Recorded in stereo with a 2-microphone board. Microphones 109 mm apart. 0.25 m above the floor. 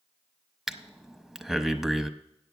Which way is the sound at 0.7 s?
Centre (ahead or behind).